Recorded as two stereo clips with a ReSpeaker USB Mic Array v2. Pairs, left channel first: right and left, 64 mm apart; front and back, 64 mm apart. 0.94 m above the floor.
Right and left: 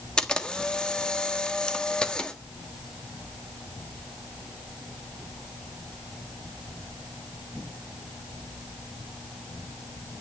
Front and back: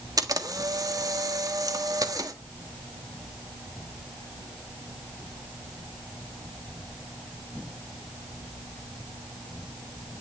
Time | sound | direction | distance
0.2 | a camera shutter | 165° right | 1.4 m